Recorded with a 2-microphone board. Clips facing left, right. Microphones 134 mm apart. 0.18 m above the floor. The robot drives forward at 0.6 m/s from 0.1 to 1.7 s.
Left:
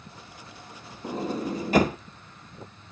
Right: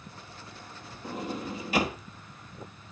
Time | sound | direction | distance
1.0 | a sliding door | 30° left (ahead or behind) | 1.2 m